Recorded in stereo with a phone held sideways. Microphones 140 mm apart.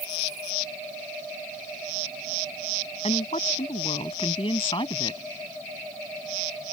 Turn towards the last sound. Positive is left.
turn(degrees=35)  # may be behind; listen again after turning